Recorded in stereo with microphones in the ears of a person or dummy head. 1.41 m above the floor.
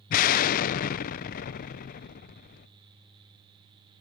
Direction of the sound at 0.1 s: 50° left (ahead or behind).